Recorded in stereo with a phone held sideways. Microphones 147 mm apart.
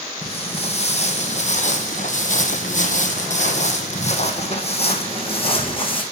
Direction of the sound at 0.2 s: 45° left (ahead or behind).